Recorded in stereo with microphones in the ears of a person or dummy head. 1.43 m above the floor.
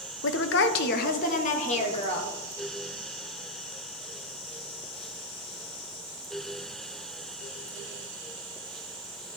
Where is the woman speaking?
60° left (ahead or behind), 0.6 m; by 2.3 s 35° left (ahead or behind), 1.5 m.